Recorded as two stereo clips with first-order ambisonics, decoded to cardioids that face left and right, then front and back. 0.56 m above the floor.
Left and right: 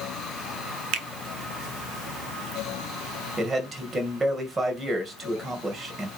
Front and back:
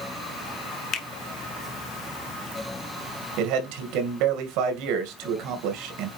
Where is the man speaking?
165° right, 2 m.